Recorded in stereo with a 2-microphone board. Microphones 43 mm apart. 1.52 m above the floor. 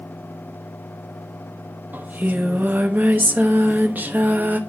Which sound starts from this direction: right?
Singing, at 1.9 s.